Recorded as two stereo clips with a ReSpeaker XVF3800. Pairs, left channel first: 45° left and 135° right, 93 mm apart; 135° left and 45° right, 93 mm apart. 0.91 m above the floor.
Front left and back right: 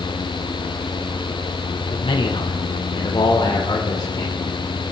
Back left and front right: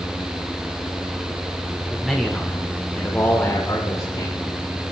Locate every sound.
1.9 s a man speaking: 45° left, 3 m; by 4.4 s 90° left, 3.5 m